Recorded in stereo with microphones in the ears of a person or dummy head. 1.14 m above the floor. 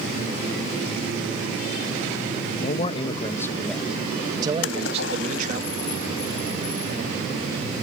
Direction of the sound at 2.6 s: 45° left (ahead or behind).